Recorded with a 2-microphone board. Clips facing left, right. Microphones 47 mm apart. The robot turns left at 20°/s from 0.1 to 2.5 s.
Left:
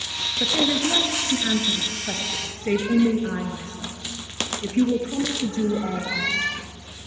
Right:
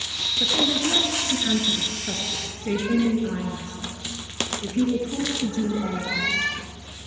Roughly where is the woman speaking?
Behind left.